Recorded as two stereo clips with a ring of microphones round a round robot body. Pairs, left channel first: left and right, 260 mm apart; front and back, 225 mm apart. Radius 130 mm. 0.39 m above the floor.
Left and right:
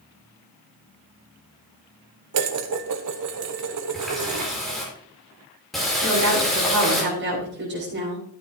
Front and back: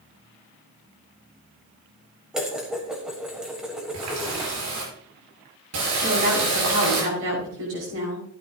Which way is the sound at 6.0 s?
140° right.